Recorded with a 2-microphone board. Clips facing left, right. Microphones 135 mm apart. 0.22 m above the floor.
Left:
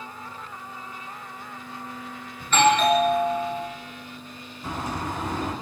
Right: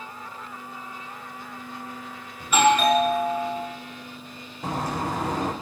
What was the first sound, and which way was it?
A doorbell, 10° right (ahead or behind).